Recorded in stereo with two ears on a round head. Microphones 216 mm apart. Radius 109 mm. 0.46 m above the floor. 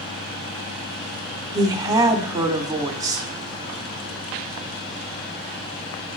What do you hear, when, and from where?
1.5 s a woman speaking: 15° right (ahead or behind), 0.9 m